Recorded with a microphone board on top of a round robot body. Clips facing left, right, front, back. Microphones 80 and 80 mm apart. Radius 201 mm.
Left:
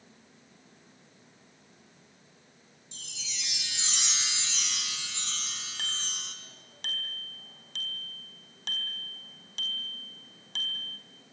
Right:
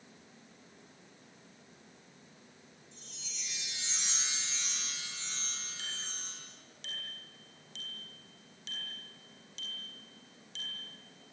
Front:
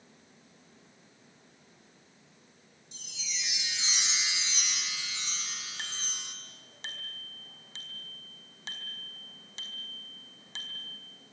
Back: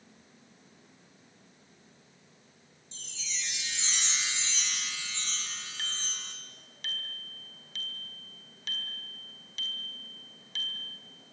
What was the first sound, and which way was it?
A chime, 80° left.